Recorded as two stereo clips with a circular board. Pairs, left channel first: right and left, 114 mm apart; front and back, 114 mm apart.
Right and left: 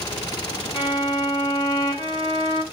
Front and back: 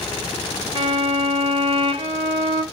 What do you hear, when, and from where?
0.8 s a violin: 140° right, 3 m